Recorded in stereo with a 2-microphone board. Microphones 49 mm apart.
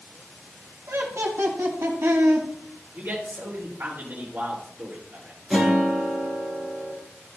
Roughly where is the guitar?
Centre.